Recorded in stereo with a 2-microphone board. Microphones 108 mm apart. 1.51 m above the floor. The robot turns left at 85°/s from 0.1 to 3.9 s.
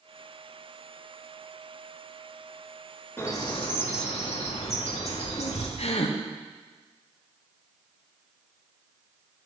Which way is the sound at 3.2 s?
160° left.